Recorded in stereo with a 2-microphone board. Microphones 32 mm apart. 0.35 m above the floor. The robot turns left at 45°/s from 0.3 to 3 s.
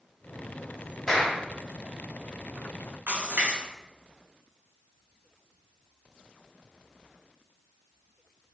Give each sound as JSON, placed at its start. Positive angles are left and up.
{"t": 1.1, "sound": "a clap", "side_deg": 10, "distance_m": 1.5}
{"t": 3.1, "sound": "a splash", "side_deg": -80, "distance_m": 1.8}